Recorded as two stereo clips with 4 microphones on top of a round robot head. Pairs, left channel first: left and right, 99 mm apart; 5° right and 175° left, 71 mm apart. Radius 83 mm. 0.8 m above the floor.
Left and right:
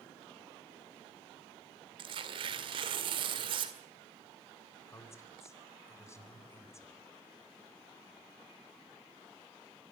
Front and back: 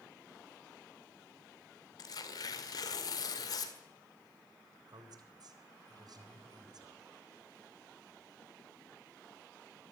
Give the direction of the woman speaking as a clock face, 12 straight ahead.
7 o'clock.